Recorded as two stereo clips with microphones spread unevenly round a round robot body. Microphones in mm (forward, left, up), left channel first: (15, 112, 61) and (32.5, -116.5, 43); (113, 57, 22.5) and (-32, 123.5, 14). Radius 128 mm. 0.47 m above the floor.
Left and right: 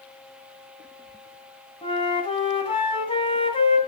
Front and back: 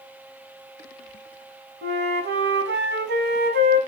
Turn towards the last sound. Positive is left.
turn(degrees=165)